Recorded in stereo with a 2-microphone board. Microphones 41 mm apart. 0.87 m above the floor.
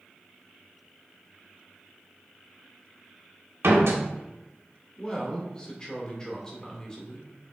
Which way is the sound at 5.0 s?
15° left (ahead or behind).